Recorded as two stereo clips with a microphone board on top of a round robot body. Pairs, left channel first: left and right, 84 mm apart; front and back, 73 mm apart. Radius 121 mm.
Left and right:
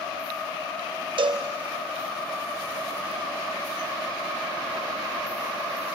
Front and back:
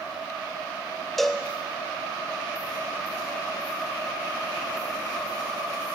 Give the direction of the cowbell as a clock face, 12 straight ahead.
3 o'clock.